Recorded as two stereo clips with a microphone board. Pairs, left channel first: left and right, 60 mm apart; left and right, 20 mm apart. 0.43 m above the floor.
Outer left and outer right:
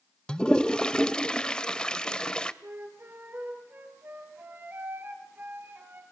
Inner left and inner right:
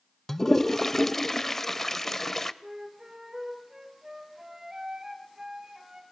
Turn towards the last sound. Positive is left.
turn(degrees=-35)  # may be behind; listen again after turning